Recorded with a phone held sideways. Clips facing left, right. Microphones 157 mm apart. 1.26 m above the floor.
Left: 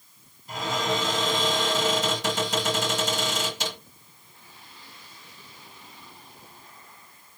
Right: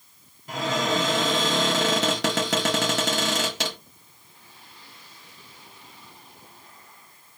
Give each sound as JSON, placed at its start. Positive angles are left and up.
{"t": 0.5, "sound": "a cupboard door", "side_deg": -80, "distance_m": 1.3}